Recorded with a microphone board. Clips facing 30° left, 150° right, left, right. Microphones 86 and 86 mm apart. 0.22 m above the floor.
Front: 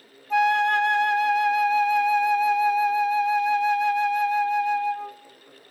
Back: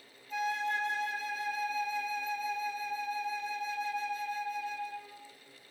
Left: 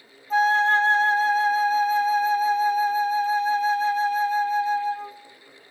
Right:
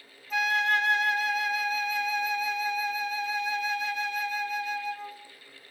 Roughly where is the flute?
Ahead left.